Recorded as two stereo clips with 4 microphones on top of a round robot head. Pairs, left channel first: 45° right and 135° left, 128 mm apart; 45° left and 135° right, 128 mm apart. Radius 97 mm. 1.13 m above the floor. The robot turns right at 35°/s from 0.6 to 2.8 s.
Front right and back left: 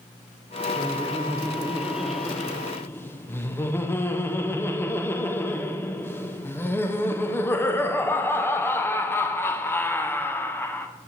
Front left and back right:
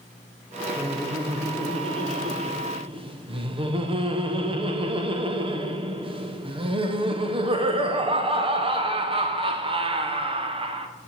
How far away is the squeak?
I don't hear a squeak.